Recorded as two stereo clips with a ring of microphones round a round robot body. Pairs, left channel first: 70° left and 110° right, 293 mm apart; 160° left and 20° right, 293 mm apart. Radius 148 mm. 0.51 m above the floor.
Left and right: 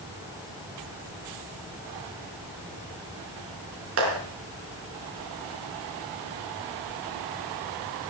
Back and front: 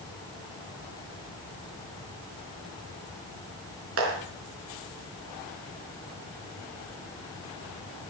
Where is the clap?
70° right, 4.5 m.